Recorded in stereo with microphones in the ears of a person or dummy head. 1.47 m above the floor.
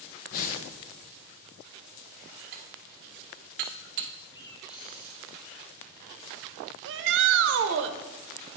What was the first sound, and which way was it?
Breathing, 45° left (ahead or behind).